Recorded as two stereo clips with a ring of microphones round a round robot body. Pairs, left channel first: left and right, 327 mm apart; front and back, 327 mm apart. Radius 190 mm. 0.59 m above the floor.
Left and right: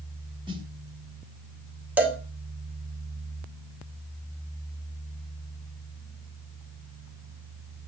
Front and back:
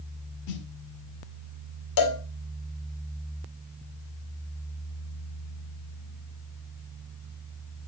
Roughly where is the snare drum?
Ahead.